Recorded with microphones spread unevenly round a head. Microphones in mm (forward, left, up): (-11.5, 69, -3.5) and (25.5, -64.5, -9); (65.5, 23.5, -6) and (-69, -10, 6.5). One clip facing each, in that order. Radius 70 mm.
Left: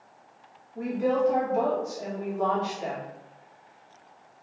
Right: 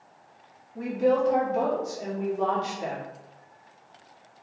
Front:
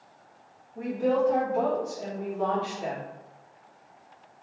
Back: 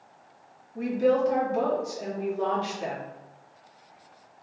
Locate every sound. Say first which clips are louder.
0.8 s a woman speaking: right 2 dB, back 2 dB; 130° right, 1.3 m